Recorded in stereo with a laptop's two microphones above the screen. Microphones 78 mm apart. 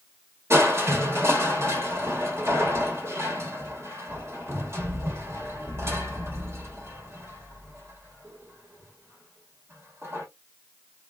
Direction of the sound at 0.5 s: 30° right (ahead or behind).